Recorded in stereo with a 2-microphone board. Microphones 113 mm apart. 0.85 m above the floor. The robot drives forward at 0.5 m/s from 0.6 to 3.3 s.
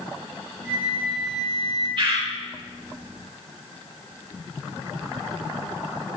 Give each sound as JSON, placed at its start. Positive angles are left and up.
{"t": 0.6, "sound": "a flute", "side_deg": 40, "distance_m": 3.5}
{"t": 2.0, "sound": "a bird", "side_deg": -50, "distance_m": 2.0}